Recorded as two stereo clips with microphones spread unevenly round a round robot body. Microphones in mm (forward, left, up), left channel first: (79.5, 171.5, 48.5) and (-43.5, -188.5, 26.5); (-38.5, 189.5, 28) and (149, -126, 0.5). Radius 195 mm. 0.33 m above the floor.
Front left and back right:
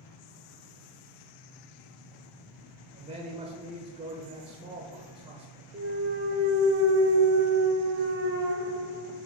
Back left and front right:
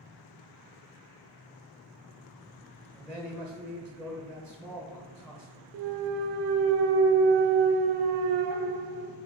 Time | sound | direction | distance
2.9 | a man speaking | 155° right | 0.8 m
5.7 | a clunk | 50° right | 0.6 m